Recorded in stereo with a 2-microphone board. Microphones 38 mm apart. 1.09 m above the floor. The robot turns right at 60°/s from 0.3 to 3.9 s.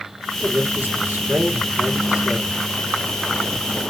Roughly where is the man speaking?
Behind right.